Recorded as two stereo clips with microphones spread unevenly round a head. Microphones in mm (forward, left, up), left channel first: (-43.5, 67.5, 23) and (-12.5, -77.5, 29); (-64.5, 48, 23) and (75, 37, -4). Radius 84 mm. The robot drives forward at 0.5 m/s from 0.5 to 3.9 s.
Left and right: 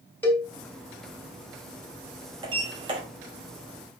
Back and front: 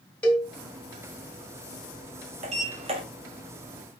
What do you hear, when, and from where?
0.2 s a cowbell: 165° left, 1.6 m
2.4 s a sliding door: 35° right, 1.9 m; by 3.0 s 50° right, 1.8 m